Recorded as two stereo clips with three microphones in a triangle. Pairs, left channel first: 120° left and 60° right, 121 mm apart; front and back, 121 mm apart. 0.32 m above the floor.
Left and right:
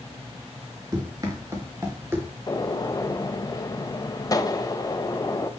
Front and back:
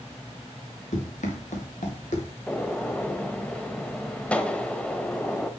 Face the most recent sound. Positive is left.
turn(degrees=75)